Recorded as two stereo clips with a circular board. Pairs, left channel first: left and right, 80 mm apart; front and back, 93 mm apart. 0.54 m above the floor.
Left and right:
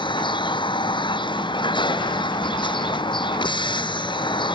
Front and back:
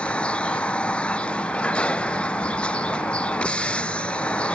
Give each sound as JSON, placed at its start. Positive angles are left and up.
{"t": 0.0, "sound": "a vehicle", "azimuth_deg": 80}